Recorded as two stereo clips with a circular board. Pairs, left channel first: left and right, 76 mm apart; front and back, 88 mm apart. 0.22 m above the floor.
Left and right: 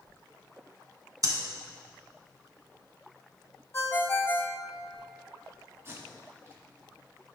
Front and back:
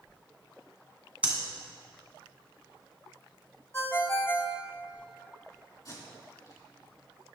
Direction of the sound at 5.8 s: 40° right.